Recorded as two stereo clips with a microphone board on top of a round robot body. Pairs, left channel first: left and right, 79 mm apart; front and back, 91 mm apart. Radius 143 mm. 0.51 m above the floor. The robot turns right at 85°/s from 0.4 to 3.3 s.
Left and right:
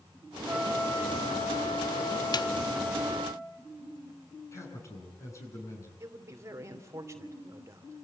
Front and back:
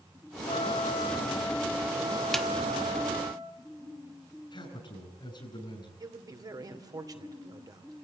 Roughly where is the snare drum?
Left.